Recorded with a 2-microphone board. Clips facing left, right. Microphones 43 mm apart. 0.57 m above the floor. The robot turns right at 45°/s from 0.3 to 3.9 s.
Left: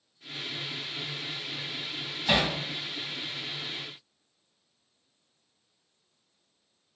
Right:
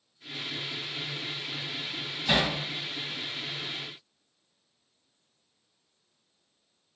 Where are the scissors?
I don't hear scissors.